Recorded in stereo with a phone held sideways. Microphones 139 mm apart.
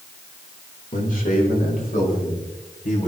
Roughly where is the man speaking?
Left.